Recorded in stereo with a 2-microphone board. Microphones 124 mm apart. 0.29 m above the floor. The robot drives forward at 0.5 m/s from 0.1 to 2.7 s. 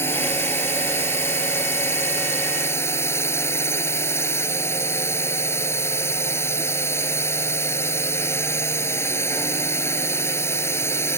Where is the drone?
20° left (ahead or behind).